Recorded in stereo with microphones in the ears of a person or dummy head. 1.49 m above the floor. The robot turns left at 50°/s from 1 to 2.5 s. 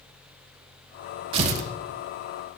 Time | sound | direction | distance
1.3 | tearing paper | 35° right (ahead or behind) | 1.2 m